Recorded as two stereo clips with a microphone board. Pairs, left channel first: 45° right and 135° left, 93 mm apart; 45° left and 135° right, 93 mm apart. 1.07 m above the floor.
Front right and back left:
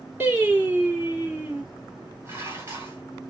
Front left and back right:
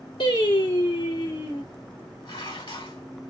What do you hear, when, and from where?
0.2 s singing: 65° left, 2.5 m
2.2 s dishes clattering: 70° left, 3 m